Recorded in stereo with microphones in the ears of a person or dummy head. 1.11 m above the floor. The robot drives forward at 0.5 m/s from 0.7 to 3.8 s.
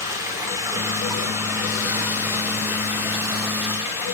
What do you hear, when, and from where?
0.0 s running water: 10° right (ahead or behind), 3 m; by 4.2 s 5° right (ahead or behind), 4.5 m